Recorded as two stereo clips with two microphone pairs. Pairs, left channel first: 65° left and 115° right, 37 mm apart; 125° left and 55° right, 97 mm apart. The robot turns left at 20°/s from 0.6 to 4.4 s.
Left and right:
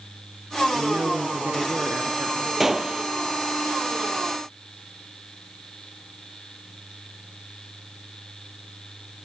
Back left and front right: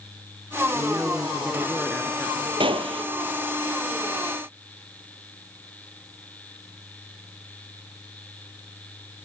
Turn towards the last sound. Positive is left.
turn(degrees=-70)